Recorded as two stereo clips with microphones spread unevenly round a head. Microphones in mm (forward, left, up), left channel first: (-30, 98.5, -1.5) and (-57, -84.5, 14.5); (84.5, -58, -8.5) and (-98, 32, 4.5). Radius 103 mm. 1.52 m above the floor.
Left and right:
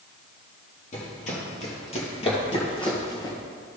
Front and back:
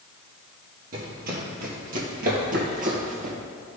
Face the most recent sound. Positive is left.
turn(degrees=150)